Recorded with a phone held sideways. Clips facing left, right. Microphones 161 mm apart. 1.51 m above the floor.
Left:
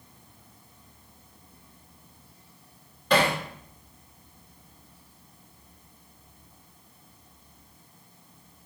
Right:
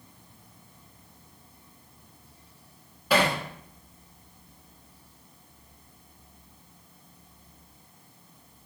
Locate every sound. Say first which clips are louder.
3.1 s hammering: left 1 dB; 5° right (ahead or behind), 1.7 m